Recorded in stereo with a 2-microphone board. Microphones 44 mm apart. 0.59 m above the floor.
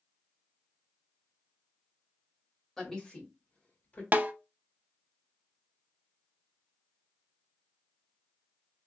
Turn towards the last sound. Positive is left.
turn(degrees=-40)  # may be behind; listen again after turning